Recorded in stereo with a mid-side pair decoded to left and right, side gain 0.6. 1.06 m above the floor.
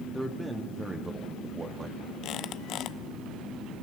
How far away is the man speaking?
About 2 m.